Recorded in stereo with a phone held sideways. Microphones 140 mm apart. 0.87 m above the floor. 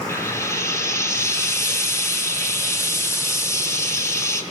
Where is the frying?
20° left (ahead or behind), 4 m.